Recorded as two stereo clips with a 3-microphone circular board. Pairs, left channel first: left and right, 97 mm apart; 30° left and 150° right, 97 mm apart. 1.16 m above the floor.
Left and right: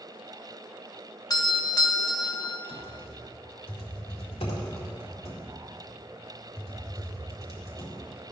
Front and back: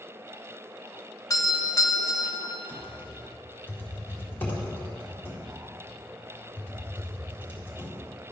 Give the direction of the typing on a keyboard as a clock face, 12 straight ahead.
9 o'clock.